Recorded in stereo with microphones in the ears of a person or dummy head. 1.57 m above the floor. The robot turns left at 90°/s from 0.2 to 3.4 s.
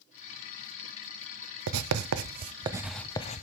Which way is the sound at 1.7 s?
65° right (ahead or behind).